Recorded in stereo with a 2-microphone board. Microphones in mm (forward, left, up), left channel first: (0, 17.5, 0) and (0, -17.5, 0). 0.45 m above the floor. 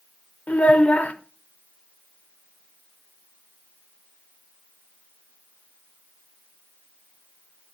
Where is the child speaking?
45° left (ahead or behind), 0.8 m.